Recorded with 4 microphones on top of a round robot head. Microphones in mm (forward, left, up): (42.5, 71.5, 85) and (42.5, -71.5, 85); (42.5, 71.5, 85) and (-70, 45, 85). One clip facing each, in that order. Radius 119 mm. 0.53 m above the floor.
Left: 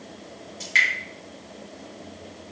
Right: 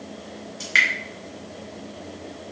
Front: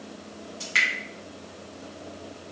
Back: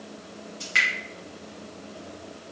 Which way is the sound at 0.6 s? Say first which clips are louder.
Right 1 dB, back 1 dB; 65° right.